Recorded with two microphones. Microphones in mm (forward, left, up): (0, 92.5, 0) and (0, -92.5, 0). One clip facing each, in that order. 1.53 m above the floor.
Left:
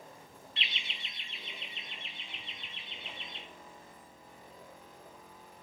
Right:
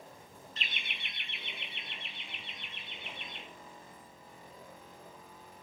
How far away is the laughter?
About 0.5 m.